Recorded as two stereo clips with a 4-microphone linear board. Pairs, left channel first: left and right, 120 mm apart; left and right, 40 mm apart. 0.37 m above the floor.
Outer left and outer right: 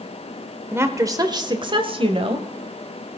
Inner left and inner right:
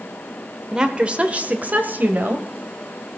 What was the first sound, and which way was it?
A woman speaking, 20° right (ahead or behind).